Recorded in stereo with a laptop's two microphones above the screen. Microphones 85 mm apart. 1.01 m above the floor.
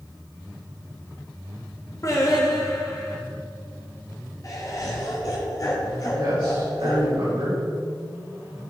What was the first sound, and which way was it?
Singing, 45° left (ahead or behind).